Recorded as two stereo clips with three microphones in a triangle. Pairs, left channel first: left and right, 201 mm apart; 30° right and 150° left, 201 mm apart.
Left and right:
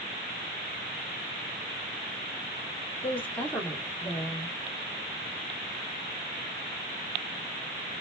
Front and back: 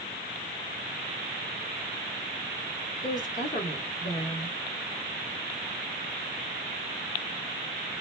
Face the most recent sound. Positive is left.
turn(degrees=10)